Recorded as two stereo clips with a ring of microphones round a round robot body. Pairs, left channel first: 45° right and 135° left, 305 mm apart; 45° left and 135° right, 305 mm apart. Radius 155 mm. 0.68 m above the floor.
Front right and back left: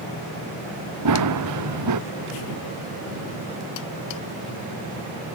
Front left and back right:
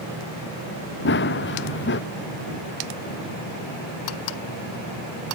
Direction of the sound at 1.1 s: 100° left.